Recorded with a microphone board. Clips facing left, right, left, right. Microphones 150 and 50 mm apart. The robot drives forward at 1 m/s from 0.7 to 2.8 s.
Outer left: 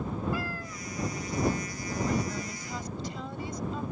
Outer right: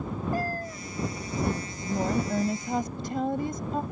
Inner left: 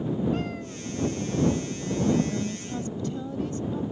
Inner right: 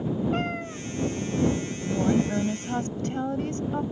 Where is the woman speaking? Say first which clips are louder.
Outer right 4 dB, inner right 1 dB; 45° right (ahead or behind); by 3.8 s 55° right (ahead or behind).